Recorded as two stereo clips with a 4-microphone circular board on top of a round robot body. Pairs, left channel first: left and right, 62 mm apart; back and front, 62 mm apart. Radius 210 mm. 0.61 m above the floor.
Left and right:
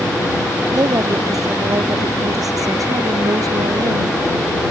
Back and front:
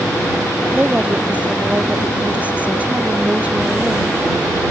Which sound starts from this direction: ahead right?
A woman speaking, at 0.7 s.